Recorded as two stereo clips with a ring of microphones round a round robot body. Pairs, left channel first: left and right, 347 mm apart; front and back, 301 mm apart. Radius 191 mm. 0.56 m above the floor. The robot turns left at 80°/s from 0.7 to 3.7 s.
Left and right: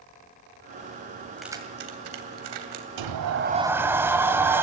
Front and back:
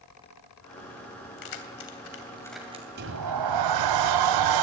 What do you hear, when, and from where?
1.4 s keys jangling: 5° left, 3 m; by 2.9 s 115° right, 3 m
3.0 s a sliding door: 115° right, 1.3 m; by 4.6 s 175° right, 1.3 m